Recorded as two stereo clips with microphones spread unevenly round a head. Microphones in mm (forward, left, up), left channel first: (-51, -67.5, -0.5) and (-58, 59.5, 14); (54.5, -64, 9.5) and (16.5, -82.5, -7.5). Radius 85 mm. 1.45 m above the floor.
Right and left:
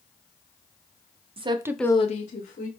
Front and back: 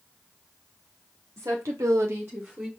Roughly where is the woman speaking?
Behind left.